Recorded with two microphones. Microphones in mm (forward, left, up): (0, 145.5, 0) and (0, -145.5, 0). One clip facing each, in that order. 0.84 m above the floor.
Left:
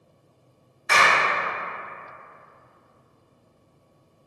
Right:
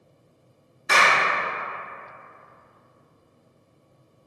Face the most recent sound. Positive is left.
turn(degrees=-40)  # may be behind; listen again after turning